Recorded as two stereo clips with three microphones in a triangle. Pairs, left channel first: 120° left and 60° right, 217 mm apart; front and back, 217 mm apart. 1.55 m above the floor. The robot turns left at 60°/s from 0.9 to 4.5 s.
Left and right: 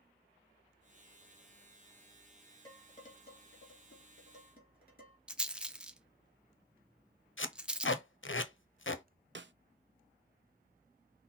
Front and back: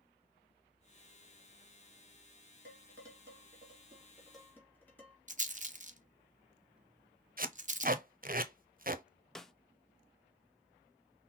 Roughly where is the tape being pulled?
Behind left.